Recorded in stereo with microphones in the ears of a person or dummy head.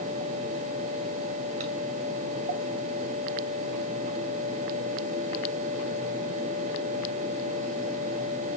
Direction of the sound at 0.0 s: 40° right (ahead or behind).